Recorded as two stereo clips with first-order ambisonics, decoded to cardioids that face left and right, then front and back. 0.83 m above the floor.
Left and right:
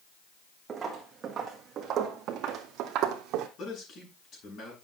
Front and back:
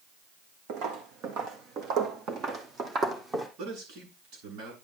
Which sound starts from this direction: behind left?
A man speaking, at 3.6 s.